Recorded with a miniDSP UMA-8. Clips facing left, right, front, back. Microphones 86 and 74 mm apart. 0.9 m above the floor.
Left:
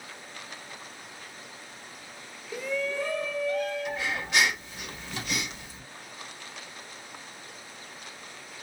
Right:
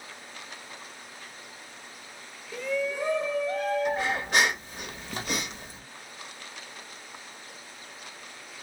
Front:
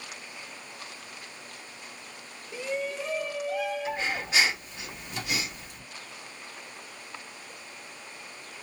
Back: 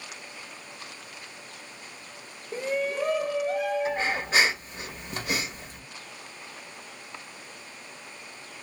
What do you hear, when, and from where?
2.5 s a shout: 165° left, 0.6 m; by 4.6 s 130° right, 1.7 m
3.9 s breathing: 130° right, 1.7 m